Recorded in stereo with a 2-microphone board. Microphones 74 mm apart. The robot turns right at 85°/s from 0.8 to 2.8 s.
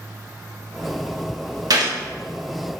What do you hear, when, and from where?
1.7 s a gunshot: 60° right (ahead or behind), 0.7 m